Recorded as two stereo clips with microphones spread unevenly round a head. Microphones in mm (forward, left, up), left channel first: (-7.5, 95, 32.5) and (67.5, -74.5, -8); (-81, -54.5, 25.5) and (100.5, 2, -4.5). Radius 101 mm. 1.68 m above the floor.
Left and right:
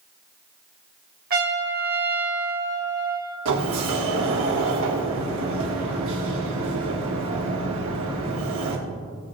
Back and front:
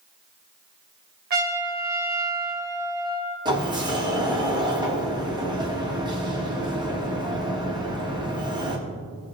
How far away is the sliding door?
About 3 m.